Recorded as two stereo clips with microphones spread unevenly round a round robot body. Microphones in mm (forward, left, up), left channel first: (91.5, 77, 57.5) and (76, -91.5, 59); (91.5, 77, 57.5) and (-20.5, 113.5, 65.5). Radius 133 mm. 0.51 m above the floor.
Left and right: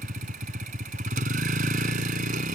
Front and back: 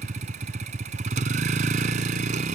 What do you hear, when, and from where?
0.0 s a vehicle: 155° right